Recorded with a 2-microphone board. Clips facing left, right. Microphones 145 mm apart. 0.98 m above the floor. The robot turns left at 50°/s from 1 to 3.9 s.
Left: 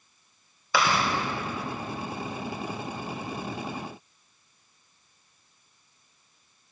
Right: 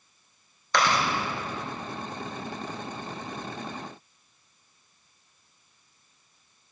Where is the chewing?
5° left (ahead or behind), 3 m.